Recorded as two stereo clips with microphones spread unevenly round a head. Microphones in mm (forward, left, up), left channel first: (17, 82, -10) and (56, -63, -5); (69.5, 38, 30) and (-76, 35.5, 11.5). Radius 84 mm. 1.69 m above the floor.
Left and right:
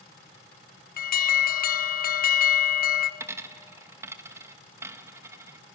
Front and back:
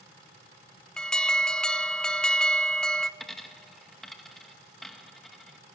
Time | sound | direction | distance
1.0 | an alarm | 90° left | 0.9 m
3.2 | a dropped coin | 60° right | 1.0 m